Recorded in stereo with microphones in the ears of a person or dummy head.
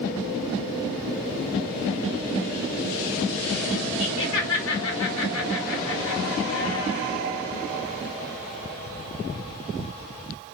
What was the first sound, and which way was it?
Laughter, 75° left (ahead or behind).